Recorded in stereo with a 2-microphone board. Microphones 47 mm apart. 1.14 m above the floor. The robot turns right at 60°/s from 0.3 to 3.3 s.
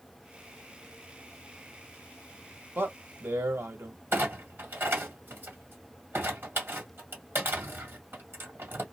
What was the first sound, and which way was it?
A man speaking, 140° right.